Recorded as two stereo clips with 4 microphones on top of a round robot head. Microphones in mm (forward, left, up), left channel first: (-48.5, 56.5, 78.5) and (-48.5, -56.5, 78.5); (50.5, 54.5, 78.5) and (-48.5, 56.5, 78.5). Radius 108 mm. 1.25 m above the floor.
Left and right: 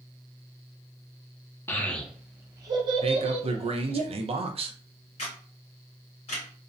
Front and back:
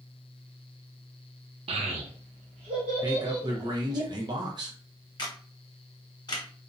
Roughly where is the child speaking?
Behind.